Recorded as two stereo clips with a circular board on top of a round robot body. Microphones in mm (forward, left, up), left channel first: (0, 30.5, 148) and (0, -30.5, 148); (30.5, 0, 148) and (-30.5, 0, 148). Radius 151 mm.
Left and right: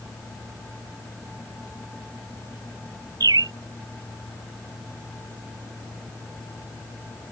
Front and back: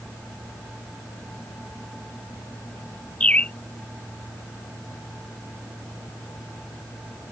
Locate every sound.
3.2 s a bird: 70° right